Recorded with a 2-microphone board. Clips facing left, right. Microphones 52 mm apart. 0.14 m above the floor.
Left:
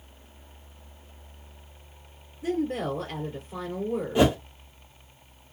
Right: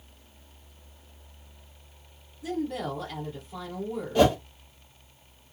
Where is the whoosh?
20° left (ahead or behind), 1.0 m.